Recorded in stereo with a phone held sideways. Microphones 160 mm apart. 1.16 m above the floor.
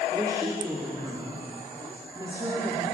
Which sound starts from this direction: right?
A woman speaking, at 0.1 s.